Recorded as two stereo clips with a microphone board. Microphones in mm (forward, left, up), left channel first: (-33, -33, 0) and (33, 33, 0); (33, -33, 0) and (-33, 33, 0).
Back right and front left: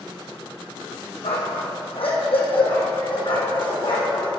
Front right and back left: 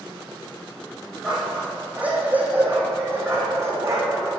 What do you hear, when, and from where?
1.2 s a dog barking: 140° right, 2.5 m; by 4.3 s 170° right, 3 m